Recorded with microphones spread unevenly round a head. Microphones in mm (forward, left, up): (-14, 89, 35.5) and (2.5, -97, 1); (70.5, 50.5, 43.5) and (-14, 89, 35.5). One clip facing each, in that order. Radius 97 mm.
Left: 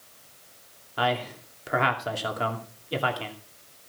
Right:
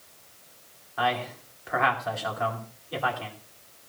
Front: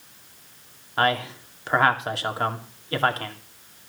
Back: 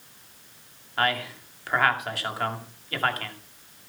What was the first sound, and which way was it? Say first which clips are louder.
A man speaking: left 1 dB, front 4 dB; 40° left.